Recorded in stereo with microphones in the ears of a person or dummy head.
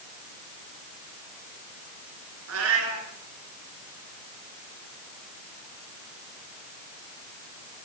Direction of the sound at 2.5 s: 85° right.